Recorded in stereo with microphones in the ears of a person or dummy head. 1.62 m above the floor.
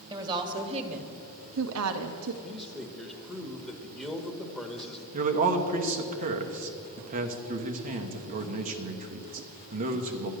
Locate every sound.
0.1 s a woman speaking: 20° right (ahead or behind), 1.6 m; by 2.3 s 65° right (ahead or behind), 0.9 m
2.4 s a man speaking: centre (ahead or behind), 1.3 m
5.1 s a man speaking: 40° right (ahead or behind), 1.2 m